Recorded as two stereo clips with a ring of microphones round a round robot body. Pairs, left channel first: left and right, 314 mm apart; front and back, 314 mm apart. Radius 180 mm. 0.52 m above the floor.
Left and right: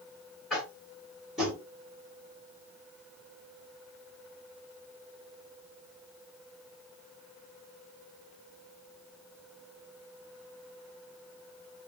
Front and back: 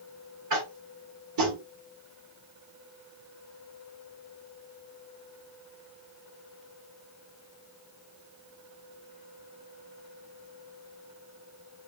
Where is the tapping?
Straight behind, 1.4 m.